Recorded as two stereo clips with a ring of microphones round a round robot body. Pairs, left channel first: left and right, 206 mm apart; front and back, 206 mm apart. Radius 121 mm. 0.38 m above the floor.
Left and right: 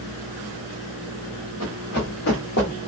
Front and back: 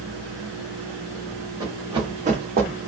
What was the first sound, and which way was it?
Running footsteps, 105° left.